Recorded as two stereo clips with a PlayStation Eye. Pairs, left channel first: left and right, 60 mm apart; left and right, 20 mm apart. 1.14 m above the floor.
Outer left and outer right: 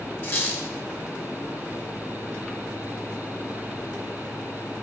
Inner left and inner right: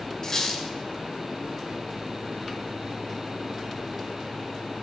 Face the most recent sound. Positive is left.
turn(degrees=40)  # may be behind; listen again after turning